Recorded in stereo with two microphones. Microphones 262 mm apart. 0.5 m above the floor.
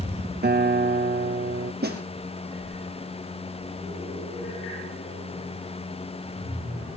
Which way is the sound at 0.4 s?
40° right (ahead or behind).